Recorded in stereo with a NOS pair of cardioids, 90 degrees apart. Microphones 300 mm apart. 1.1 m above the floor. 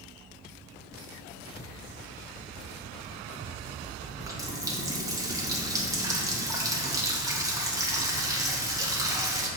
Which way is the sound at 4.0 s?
10° right.